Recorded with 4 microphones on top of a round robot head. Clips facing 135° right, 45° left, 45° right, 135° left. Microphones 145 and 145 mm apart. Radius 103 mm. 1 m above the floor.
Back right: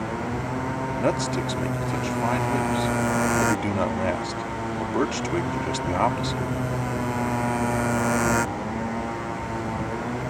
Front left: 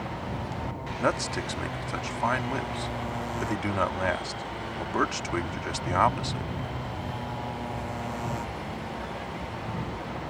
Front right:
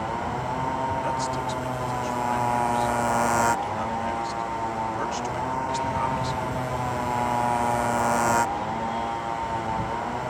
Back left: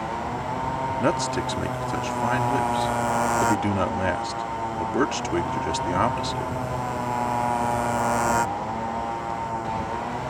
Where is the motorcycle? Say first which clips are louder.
Back right 6 dB, even; 135° right.